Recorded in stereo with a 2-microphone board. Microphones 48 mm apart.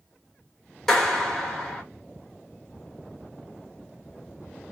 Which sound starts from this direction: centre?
A clap, at 0.9 s.